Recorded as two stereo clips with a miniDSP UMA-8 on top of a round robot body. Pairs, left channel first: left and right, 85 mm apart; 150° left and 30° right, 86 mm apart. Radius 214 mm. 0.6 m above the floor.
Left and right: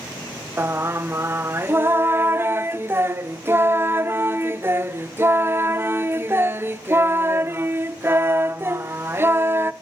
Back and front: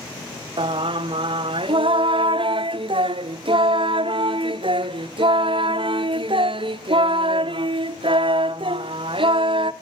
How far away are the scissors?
I don't hear scissors.